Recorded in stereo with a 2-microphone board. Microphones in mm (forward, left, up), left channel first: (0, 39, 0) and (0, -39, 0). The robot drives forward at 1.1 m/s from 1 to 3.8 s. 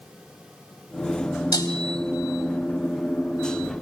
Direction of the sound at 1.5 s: 50° left (ahead or behind).